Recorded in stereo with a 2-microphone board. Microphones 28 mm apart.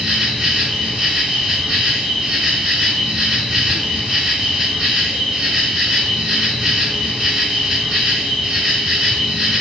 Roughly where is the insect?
Right.